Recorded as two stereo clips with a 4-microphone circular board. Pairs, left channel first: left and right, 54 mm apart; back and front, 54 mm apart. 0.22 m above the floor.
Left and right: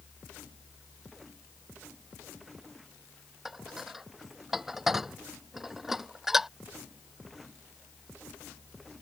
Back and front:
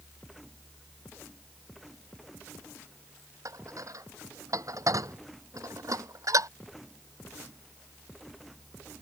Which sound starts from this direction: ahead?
Dishes clattering, at 3.5 s.